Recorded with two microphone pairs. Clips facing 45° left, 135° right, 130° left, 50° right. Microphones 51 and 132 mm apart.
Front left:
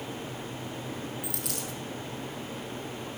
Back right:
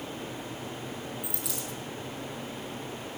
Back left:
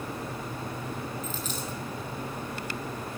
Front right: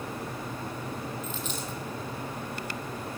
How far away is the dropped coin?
About 1.9 m.